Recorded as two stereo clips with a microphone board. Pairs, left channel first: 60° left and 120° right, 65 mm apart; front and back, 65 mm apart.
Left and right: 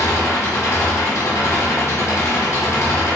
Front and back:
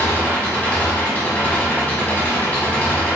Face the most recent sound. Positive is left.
turn(degrees=65)